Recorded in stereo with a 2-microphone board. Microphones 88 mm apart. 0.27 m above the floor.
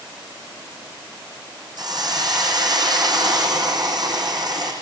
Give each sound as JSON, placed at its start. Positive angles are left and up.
{"t": 1.8, "sound": "a hiss", "side_deg": -55, "distance_m": 7.0}